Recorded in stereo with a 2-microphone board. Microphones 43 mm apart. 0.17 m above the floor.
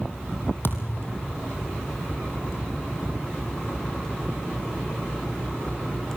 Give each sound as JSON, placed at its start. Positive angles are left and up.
{"t": 0.6, "sound": "a thud", "side_deg": 55, "distance_m": 2.5}